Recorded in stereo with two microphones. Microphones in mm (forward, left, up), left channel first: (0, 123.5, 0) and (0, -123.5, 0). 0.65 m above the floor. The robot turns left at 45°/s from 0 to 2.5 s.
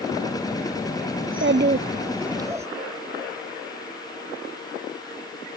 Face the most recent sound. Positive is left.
turn(degrees=-165)